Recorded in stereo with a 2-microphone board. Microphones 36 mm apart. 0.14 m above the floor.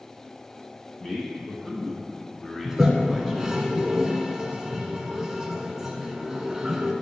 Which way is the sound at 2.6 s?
10° right (ahead or behind).